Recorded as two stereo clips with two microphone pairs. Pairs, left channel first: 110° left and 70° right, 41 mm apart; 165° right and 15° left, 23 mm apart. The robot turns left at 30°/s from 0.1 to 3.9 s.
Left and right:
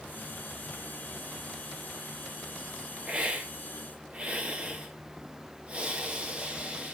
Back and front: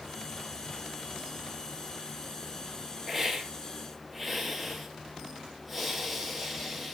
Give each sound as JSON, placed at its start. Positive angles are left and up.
{"t": 3.1, "sound": "a hiss", "azimuth_deg": -40, "distance_m": 0.8}